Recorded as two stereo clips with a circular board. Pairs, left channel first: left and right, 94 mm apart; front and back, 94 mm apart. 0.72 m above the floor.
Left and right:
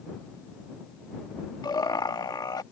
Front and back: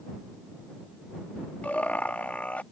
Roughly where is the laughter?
Left.